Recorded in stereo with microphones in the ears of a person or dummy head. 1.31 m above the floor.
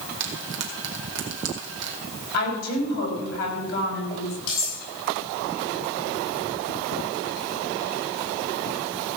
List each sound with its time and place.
0.2 s frying: 70° right (ahead or behind), 2.5 m
2.3 s a woman speaking: 60° left (ahead or behind), 5.5 m
4.5 s cutlery clinking: 55° left (ahead or behind), 6.5 m